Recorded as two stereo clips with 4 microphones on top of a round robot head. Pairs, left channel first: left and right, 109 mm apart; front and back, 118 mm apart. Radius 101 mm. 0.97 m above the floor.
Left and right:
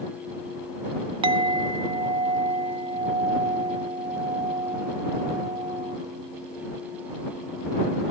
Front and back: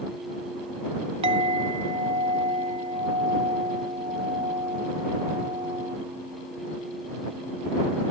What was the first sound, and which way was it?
A clink, 125° right.